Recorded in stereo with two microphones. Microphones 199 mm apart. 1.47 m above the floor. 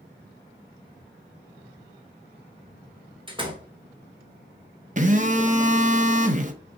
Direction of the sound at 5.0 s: 40° right (ahead or behind).